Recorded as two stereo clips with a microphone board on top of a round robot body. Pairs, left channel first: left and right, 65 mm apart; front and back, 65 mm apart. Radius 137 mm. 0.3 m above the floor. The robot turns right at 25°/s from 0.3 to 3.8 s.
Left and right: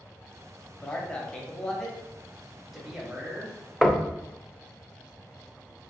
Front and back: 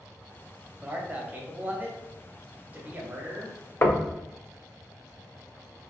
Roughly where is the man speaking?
Behind left.